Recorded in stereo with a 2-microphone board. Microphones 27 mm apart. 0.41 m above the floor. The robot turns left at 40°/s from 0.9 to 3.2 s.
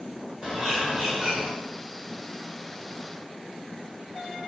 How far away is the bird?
About 1.4 m.